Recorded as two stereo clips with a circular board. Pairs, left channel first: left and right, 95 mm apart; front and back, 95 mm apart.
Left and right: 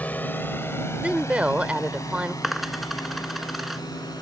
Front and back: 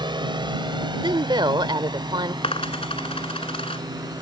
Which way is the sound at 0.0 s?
160° left.